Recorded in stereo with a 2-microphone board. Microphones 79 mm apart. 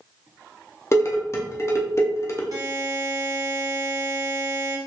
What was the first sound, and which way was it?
Dishes clattering, 35° left (ahead or behind).